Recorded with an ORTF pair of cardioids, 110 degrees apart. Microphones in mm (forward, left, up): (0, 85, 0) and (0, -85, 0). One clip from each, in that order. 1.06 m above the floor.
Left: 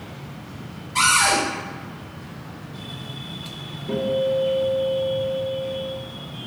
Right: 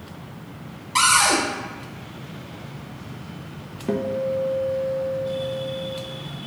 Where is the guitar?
60° right, 0.7 m.